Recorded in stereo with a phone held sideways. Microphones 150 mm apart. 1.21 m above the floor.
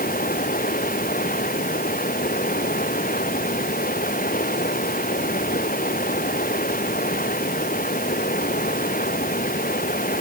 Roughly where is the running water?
Left.